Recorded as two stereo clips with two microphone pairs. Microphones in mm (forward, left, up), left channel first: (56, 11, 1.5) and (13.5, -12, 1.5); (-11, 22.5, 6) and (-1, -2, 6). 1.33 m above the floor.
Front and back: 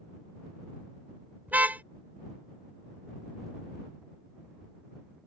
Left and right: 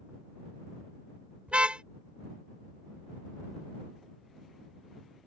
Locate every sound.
1.5 s a car horn: 100° right